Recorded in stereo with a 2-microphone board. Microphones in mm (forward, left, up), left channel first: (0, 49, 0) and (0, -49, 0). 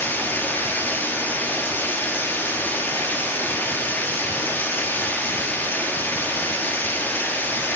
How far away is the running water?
About 2 m.